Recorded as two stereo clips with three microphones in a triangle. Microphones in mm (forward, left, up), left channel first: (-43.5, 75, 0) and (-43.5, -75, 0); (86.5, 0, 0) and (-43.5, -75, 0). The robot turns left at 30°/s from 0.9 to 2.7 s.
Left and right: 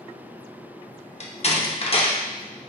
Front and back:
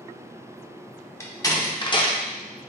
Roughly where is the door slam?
Left.